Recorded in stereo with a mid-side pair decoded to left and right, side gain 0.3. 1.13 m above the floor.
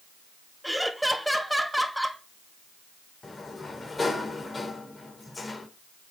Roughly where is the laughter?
Ahead.